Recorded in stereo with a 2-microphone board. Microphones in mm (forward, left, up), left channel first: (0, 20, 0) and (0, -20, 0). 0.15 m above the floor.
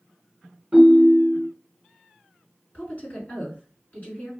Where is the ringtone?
25° right (ahead or behind), 1.1 m.